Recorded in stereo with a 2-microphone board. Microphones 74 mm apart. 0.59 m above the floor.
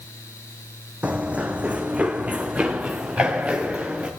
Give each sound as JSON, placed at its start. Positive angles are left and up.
{"t": 1.0, "sound": "running footsteps", "side_deg": -20, "distance_m": 1.4}